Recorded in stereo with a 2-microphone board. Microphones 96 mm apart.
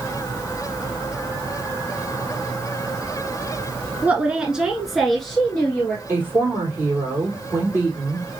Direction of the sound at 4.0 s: 15° right (ahead or behind).